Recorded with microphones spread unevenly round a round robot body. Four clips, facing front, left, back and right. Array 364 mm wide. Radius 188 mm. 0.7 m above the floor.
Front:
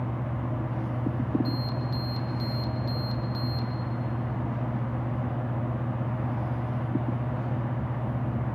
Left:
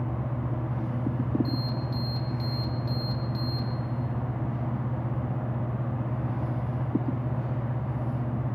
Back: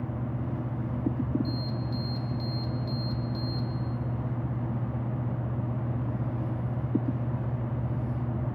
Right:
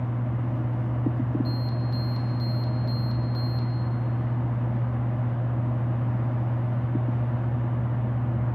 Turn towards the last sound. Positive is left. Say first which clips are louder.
# right 1 dB, front 2 dB
turn(degrees=65)